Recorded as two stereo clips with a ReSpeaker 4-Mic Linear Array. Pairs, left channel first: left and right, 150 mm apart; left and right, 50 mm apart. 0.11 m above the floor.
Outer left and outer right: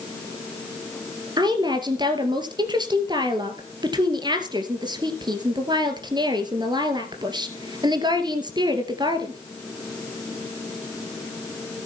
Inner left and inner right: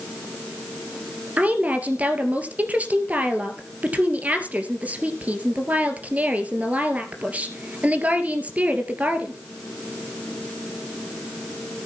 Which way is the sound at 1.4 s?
30° right (ahead or behind).